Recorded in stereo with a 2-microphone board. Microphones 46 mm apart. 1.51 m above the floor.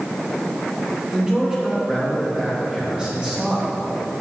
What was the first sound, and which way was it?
A man speaking, 15° right (ahead or behind).